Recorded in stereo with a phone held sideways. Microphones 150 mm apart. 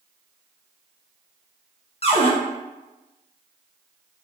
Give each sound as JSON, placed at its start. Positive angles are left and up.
{"t": 2.0, "sound": "a cupboard door", "side_deg": 40, "distance_m": 0.7}